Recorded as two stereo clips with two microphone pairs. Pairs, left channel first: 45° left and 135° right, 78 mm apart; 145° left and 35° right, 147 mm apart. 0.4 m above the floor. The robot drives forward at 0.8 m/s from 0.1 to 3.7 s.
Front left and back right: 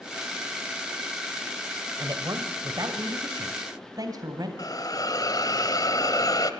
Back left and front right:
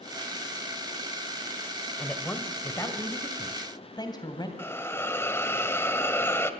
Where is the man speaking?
140° right, 1.9 m; by 4.5 s 160° right, 3 m.